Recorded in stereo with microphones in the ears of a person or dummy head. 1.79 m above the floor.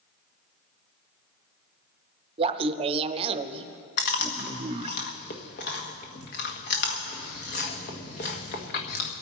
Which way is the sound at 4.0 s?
40° left (ahead or behind).